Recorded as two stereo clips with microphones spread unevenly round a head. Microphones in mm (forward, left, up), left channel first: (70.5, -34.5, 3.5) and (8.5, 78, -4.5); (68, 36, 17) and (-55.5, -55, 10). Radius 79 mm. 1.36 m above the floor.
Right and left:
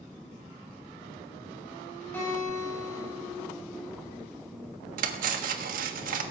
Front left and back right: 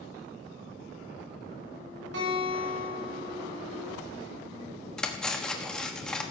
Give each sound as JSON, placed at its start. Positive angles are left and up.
{"t": 2.1, "sound": "a guitar", "azimuth_deg": -140, "distance_m": 6.0}
{"t": 5.0, "sound": "cutlery clinking", "azimuth_deg": 120, "distance_m": 1.2}